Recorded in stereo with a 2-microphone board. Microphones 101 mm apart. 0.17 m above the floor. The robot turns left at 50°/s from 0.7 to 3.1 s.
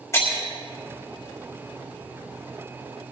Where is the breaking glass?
30° left (ahead or behind), 5.5 m.